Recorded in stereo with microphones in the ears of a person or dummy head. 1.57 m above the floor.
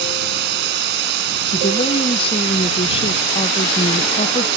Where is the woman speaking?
30° left (ahead or behind).